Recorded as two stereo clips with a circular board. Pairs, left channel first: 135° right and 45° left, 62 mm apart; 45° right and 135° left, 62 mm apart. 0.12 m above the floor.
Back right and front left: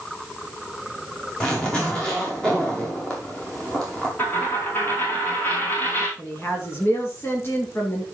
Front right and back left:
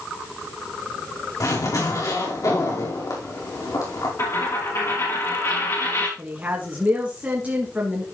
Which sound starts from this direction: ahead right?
A zipper, at 1.4 s.